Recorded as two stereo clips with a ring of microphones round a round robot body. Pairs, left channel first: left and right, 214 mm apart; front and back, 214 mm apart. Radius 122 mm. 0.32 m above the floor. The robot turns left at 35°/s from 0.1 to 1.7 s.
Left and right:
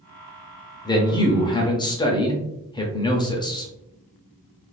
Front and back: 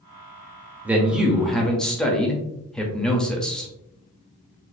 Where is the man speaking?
110° left, 0.8 m; by 3.7 s 80° left, 0.8 m.